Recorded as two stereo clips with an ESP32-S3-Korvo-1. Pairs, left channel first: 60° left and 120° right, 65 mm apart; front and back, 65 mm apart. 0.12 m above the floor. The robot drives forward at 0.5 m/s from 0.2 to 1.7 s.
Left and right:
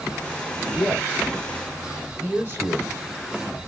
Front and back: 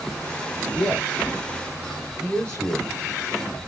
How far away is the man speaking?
About 2.5 m.